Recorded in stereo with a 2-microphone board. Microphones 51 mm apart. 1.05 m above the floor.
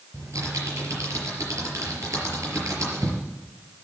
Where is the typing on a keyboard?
75° right (ahead or behind), 5 m.